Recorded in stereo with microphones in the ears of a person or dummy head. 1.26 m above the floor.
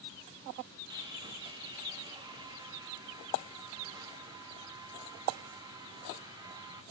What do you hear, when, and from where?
0.9 s sawing: 20° right (ahead or behind), 1.5 m